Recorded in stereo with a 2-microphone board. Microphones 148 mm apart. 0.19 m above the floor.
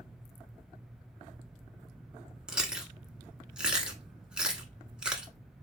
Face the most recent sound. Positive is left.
turn(degrees=-5)  # may be behind; listen again after turning